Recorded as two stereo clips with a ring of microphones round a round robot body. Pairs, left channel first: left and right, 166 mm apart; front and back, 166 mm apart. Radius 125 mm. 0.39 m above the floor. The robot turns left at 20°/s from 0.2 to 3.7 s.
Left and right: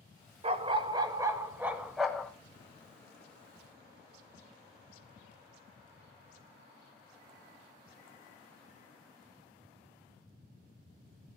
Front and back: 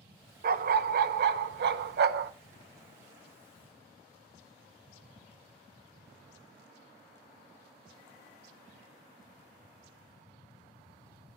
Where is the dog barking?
145° right, 0.6 m; by 2.3 s 175° left, 0.6 m.